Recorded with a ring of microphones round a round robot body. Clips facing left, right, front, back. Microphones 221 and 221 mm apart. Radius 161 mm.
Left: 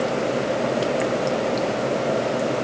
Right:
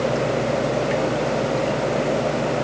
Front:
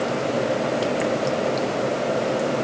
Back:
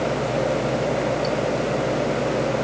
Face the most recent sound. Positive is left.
No sound to turn to.